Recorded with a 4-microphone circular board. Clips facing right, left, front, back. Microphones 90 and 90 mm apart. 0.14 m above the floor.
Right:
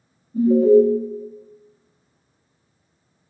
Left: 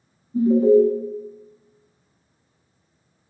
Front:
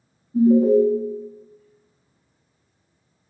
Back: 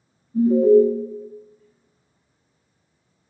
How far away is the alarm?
About 0.9 m.